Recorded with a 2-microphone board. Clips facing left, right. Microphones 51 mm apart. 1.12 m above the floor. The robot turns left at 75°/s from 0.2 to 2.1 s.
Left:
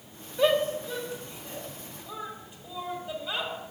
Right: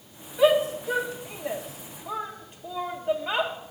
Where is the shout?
Centre (ahead or behind), 1.5 m; by 3.5 s 50° right (ahead or behind), 1.5 m.